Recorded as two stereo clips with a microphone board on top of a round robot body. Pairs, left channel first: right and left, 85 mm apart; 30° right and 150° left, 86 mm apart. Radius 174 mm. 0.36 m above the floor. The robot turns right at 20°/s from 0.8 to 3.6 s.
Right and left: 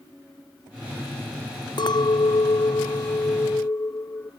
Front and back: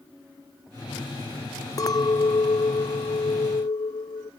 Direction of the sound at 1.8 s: 70° right.